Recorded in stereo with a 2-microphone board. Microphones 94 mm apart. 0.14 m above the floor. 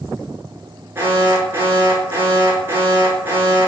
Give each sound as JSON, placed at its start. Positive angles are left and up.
{"t": 0.9, "sound": "an alarm", "side_deg": -25, "distance_m": 1.6}